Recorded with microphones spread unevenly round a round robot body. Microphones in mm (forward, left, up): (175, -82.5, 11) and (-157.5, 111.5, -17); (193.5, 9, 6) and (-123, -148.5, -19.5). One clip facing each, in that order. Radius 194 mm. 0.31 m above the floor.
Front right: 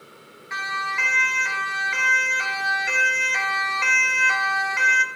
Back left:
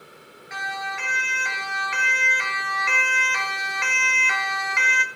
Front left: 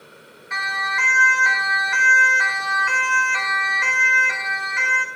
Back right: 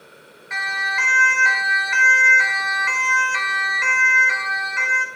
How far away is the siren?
About 4 m.